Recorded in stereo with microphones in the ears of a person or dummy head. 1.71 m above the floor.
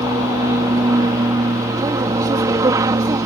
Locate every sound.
0.0 s an aircraft: 15° right (ahead or behind)